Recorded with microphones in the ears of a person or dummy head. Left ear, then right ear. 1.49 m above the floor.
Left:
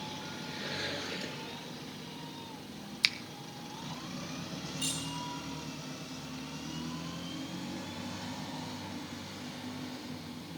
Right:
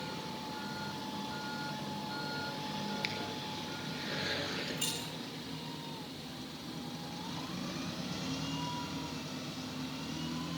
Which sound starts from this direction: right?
Keys jangling, at 4.8 s.